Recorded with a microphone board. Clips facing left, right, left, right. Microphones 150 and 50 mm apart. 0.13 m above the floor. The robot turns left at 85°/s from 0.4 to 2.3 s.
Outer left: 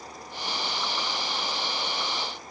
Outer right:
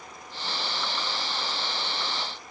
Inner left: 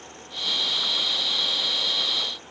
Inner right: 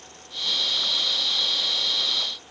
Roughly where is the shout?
No shout in this recording.